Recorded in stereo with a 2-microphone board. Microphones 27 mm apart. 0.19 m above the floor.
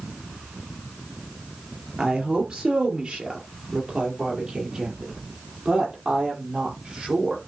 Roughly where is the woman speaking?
Right.